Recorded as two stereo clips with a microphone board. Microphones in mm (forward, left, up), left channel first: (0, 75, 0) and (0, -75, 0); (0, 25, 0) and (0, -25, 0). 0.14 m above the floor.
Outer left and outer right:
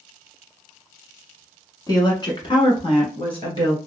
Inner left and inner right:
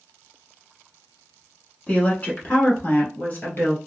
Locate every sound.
1.9 s a woman speaking: 25° left (ahead or behind), 1.1 m; by 3.8 s 35° left (ahead or behind), 2 m